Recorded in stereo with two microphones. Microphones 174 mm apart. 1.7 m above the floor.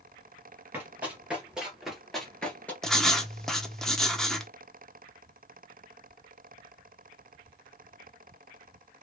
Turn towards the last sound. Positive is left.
turn(degrees=5)  # may be behind; listen again after turning